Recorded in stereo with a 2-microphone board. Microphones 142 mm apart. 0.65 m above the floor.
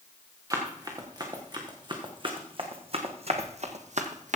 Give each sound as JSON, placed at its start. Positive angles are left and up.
{"t": 0.5, "sound": "running footsteps", "side_deg": -25, "distance_m": 3.0}